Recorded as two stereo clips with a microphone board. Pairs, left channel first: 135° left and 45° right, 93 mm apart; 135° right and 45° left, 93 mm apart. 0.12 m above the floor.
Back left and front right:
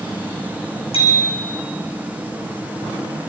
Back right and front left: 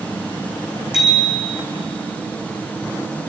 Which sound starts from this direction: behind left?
A bicycle bell, at 0.9 s.